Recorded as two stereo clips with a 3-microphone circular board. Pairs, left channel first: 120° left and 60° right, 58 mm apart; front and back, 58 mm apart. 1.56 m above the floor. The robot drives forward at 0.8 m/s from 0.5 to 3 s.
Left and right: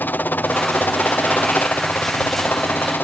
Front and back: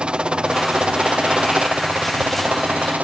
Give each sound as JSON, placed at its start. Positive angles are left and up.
{"t": 0.0, "sound": "a helicopter", "azimuth_deg": 120}